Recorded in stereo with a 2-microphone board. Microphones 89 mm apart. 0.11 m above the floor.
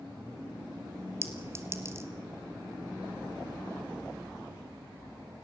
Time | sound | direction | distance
1.2 | a clink | 30° right (ahead or behind) | 1.7 m